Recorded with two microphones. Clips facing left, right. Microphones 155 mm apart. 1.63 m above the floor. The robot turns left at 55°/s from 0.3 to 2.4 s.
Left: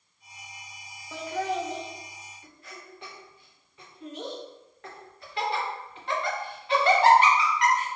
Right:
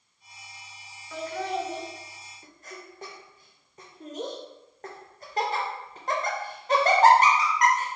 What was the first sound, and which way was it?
Laughter, 20° left (ahead or behind).